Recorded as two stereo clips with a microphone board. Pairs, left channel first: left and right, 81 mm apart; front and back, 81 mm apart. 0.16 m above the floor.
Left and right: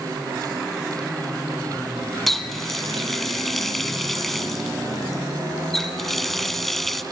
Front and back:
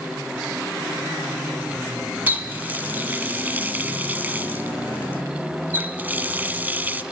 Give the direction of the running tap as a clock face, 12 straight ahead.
6 o'clock.